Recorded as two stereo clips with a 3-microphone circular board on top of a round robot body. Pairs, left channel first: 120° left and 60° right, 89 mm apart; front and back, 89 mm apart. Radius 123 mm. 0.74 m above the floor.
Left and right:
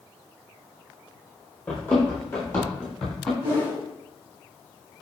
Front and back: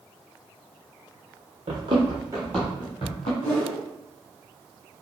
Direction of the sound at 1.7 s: 160° right.